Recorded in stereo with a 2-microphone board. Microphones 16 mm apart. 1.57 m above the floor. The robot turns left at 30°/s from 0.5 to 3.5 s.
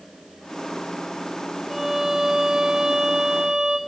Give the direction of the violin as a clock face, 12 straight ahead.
12 o'clock.